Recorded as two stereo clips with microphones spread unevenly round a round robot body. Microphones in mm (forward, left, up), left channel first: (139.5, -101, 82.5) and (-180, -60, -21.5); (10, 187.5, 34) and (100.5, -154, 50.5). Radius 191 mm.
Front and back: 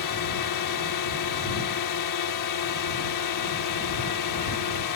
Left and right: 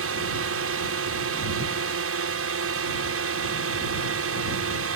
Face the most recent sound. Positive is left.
turn(degrees=-35)